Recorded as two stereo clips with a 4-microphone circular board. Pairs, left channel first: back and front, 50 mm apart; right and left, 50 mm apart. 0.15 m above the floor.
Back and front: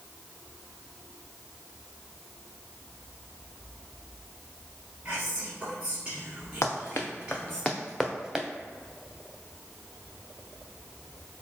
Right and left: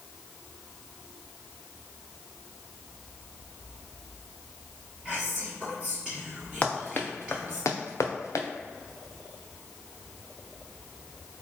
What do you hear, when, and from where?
5.0 s whispering: 40° left, 1.1 m
6.6 s running footsteps: 155° right, 0.8 m; by 8.5 s 80° right, 0.8 m